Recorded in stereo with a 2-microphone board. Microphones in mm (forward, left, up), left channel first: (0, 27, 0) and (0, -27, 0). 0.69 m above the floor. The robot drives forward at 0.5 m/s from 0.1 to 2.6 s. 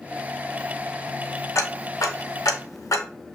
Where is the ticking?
65° left (ahead or behind), 0.9 m; by 3.1 s 80° left, 0.9 m.